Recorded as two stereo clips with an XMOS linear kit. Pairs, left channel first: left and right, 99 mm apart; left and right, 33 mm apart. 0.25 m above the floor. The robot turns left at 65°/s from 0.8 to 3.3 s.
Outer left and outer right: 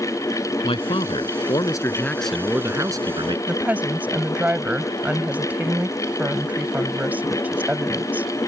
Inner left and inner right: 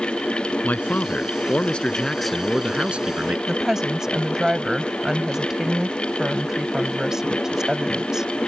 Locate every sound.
0.6 s a man speaking: 100° left; by 3.4 s 65° right
3.5 s a woman speaking: 15° right (ahead or behind)